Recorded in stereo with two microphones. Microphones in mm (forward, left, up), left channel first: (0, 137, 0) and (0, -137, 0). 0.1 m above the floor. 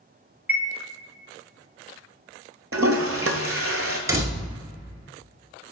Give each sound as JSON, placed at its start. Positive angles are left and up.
{"t": 0.5, "sound": "a chime", "side_deg": -5, "distance_m": 0.6}
{"t": 2.7, "sound": "a toilet flushing", "side_deg": -50, "distance_m": 0.5}
{"t": 4.1, "sound": "a door slam", "side_deg": -10, "distance_m": 0.7}